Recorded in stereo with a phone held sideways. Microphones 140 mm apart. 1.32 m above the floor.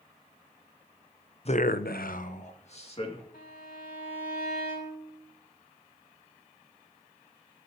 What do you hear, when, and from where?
1.4 s a man speaking: 40° left (ahead or behind), 0.7 m
3.3 s a violin: 75° left (ahead or behind), 3.5 m